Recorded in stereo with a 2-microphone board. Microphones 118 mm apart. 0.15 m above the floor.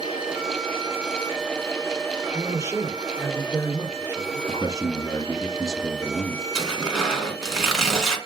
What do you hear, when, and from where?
2.3 s a man speaking: 25° right (ahead or behind), 3 m
4.5 s a man speaking: 30° left (ahead or behind), 1.9 m
6.5 s tearing paper: 5° left (ahead or behind), 1.8 m